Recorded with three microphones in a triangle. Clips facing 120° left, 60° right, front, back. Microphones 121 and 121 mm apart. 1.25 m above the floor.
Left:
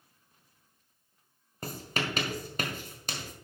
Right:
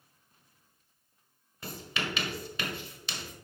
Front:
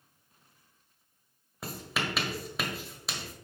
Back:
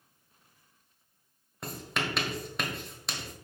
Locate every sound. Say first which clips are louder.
1.6 s writing: left 2 dB, even; 85° left, 1.4 m